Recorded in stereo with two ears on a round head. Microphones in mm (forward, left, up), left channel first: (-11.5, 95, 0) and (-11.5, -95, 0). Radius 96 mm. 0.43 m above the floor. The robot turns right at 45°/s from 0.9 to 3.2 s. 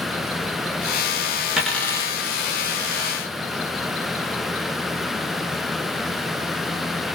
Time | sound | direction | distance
1.6 | a dropped coin | centre (ahead or behind) | 0.6 m